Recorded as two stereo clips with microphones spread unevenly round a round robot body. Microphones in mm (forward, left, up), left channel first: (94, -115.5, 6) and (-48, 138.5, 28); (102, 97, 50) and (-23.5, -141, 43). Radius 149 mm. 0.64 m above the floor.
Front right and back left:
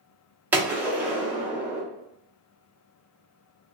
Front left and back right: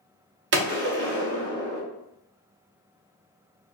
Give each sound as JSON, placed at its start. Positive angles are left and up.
{"t": 0.5, "sound": "a gunshot", "azimuth_deg": -155, "distance_m": 0.9}